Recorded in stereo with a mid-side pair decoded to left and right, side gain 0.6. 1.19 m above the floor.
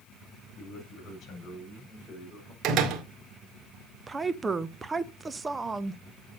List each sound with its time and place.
0.6 s a man speaking: 50° left, 5.5 m; by 2.5 s 30° left, 4 m
2.6 s a door slam: 60° right, 1.8 m
4.1 s a woman speaking: 20° right, 0.8 m